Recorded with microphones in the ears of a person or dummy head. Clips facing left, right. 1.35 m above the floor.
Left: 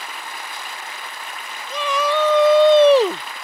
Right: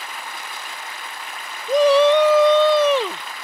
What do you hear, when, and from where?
1.7 s a shout: 40° right (ahead or behind); by 3.2 s 45° left (ahead or behind)